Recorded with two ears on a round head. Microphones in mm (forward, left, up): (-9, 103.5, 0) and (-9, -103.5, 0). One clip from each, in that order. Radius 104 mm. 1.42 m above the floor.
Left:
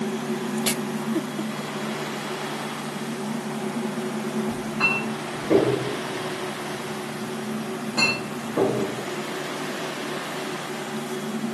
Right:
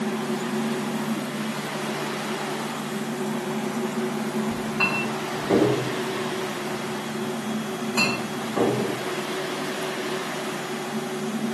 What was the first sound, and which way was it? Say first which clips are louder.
A clink: left 2 dB; 45° right (ahead or behind).